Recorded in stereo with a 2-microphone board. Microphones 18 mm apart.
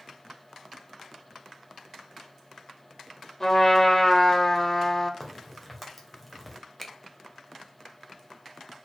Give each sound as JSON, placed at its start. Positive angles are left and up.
{"t": 3.4, "sound": "a trumpet", "side_deg": 20, "distance_m": 1.3}
{"t": 5.2, "sound": "a crack", "side_deg": 0, "distance_m": 1.2}
{"t": 6.8, "sound": "a finger snap", "side_deg": 15, "distance_m": 0.7}